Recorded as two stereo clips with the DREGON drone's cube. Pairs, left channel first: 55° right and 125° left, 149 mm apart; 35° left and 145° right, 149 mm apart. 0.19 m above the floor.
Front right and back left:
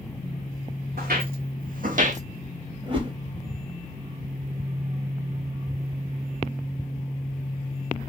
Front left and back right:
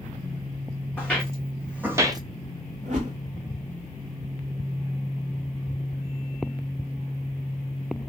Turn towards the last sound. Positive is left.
turn(degrees=180)